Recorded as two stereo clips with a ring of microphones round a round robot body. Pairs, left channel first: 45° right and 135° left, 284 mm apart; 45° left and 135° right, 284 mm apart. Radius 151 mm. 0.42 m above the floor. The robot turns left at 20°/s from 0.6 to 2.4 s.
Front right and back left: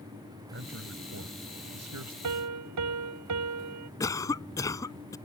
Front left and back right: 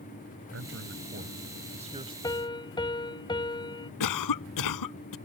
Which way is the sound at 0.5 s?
175° right.